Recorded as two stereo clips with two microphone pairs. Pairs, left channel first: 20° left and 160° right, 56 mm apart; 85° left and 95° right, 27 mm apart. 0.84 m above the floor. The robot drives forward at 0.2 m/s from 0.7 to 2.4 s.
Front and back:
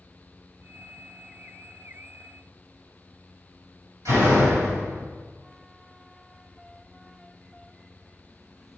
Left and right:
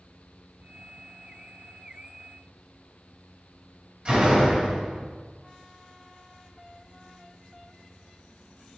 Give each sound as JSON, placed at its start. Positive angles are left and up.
{"t": 4.0, "sound": "a door slam", "azimuth_deg": -140, "distance_m": 2.5}